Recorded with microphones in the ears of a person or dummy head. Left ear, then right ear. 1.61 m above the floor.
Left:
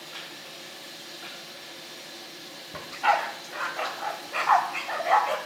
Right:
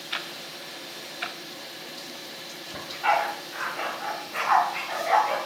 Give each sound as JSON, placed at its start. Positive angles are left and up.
{"t": 0.1, "sound": "ticking", "side_deg": -40, "distance_m": 1.2}
{"t": 2.7, "sound": "a dog barking", "side_deg": 25, "distance_m": 1.7}